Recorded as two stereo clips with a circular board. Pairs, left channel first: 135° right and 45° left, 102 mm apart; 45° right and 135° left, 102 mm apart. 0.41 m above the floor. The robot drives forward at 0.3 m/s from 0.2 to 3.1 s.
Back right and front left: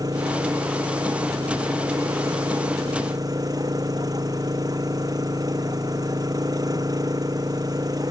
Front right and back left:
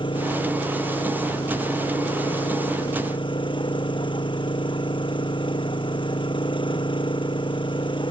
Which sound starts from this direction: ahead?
An engine running, at 0.0 s.